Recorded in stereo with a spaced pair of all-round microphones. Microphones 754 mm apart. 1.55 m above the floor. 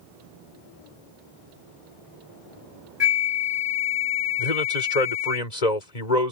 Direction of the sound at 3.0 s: 35° left (ahead or behind).